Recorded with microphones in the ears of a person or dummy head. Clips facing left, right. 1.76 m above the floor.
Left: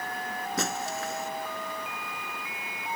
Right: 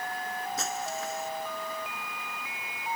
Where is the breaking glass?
50° left (ahead or behind).